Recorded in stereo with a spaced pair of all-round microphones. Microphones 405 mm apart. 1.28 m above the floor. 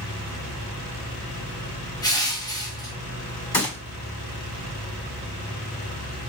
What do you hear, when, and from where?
2.0 s crushing: 10° left (ahead or behind), 0.8 m
3.5 s a gunshot: 60° left (ahead or behind), 1.3 m